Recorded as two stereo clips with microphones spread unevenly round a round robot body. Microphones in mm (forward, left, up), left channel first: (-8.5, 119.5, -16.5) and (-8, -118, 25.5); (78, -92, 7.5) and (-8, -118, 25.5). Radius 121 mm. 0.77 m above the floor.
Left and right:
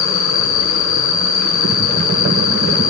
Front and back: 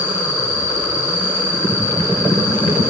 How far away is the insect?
About 1.2 m.